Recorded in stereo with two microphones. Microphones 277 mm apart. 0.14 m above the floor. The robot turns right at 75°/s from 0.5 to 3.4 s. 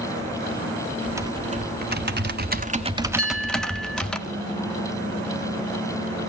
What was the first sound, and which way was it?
Typing on a keyboard, 170° right.